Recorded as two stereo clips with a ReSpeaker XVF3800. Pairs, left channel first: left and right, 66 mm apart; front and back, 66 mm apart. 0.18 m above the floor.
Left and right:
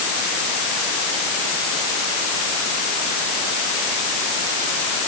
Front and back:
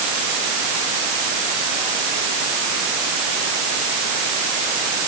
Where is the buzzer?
I don't hear a buzzer.